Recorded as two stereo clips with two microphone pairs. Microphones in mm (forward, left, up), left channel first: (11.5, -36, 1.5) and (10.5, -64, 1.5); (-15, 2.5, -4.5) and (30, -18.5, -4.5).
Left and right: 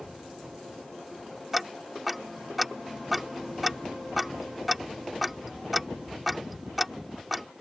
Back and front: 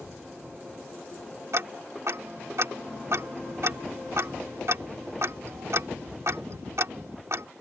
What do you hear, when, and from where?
1.5 s ticking: 10° right